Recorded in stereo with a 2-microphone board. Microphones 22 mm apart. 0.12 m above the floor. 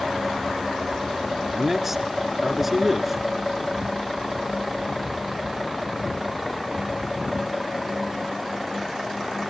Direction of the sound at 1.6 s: 10° right (ahead or behind).